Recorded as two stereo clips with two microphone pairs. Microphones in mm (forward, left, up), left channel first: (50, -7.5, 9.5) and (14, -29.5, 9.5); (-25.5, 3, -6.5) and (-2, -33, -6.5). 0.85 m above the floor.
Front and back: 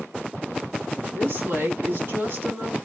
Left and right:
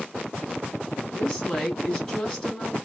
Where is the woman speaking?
170° right, 2 m.